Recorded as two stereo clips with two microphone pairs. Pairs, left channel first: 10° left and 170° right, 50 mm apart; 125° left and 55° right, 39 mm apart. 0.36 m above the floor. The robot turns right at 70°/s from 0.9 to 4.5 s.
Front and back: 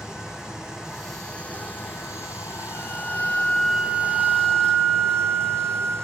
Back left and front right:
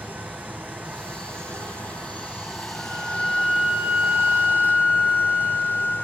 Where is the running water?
95° right, 2 m; by 6.0 s 155° left, 2 m.